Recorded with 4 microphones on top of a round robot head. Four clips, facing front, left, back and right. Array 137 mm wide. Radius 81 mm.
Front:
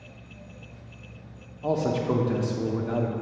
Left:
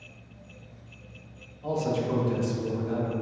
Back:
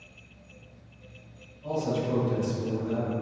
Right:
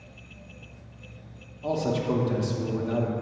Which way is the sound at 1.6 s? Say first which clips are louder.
Right 1 dB, front 4 dB; 15° right.